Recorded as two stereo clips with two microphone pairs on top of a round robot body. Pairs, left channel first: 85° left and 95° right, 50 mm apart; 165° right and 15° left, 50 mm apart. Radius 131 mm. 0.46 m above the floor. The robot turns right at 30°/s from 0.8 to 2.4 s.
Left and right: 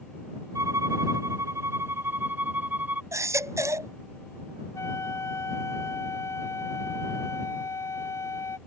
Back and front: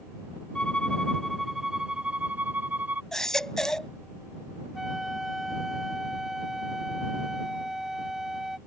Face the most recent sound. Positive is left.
turn(degrees=100)